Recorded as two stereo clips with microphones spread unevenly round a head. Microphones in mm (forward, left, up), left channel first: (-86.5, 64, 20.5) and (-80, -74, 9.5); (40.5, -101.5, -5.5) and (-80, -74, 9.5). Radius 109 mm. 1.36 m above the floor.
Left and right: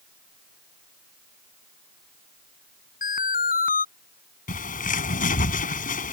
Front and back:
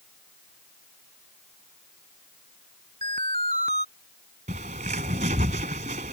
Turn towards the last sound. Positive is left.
turn(degrees=110)